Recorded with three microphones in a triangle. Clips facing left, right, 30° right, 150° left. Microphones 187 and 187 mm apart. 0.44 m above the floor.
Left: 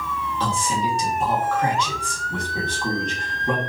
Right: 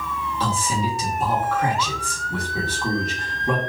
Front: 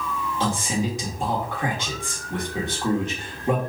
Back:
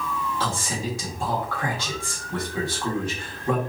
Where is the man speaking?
10° right, 1.1 m.